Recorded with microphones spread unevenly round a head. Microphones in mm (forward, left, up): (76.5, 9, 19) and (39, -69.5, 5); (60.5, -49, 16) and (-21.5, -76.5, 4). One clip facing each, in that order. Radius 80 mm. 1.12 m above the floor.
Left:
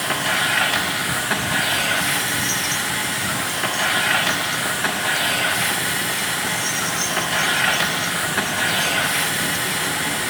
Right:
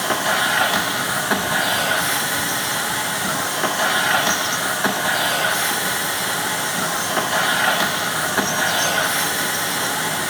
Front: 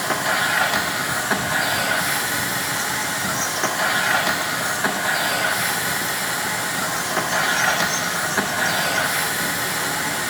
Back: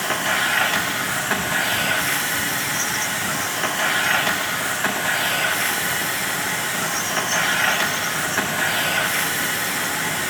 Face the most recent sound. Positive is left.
turn(degrees=-60)